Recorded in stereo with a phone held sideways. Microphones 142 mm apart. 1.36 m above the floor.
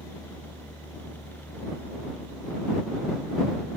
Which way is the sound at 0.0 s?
15° left (ahead or behind).